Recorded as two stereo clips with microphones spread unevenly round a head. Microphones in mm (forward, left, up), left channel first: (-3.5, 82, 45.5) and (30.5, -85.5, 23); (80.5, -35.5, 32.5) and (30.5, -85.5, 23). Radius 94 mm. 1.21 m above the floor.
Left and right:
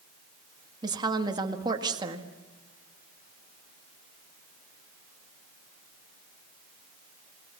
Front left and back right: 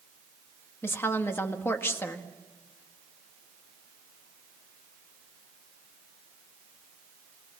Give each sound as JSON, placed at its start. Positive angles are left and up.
{"t": 0.8, "sound": "a woman speaking", "azimuth_deg": -10, "distance_m": 1.9}